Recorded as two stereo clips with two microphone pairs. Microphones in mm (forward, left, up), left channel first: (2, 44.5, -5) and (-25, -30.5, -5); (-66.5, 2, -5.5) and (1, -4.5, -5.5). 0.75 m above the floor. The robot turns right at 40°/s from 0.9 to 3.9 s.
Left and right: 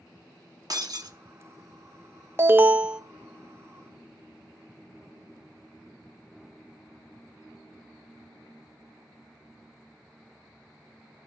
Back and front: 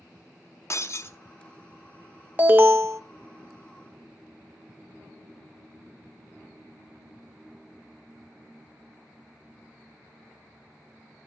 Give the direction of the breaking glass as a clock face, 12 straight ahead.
5 o'clock.